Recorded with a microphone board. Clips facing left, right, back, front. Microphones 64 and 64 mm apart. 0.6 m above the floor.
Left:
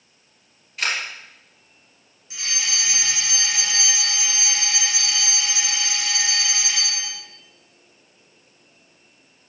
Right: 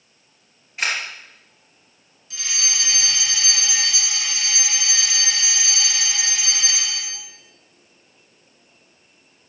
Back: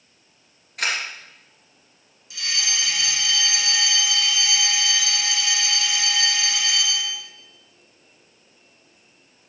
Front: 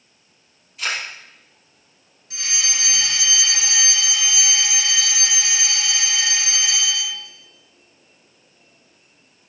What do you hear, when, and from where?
0.8 s a camera shutter: 155° right, 3 m
2.3 s a fire alarm: 30° left, 3 m